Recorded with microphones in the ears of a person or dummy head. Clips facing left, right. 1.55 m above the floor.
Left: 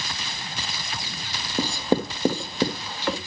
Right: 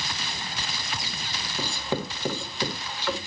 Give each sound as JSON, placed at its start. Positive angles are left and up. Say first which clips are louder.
{"t": 1.6, "sound": "writing", "louder": "left 7 dB", "side_deg": 40, "distance_m": 1.7}